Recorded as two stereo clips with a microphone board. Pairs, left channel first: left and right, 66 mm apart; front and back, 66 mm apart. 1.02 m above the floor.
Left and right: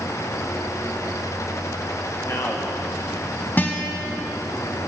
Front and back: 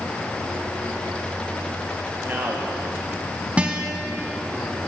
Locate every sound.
2.2 s a man speaking: 125° left, 1.6 m
3.6 s a guitar: 125° left, 1.0 m